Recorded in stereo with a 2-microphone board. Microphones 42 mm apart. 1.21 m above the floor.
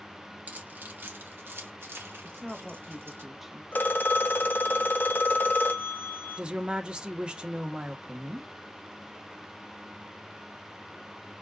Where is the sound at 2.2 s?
5° right (ahead or behind), 1.0 m.